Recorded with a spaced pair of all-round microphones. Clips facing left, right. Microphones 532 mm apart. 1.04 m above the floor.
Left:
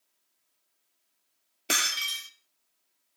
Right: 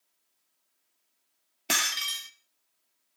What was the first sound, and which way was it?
Breaking glass, 20° right (ahead or behind).